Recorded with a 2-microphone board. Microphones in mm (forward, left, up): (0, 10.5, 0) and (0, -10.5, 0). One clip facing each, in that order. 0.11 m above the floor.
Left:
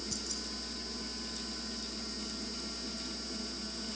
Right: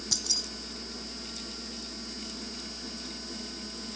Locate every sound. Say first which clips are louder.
0.1 s keys jangling: right 15 dB; 65° right (ahead or behind)